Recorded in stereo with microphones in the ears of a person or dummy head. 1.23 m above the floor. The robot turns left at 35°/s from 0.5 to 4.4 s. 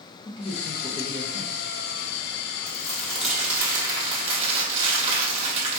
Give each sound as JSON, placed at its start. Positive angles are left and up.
{"t": 0.2, "sound": "a man speaking", "azimuth_deg": 150, "distance_m": 0.8}
{"t": 2.7, "sound": "crumpling", "azimuth_deg": 25, "distance_m": 1.5}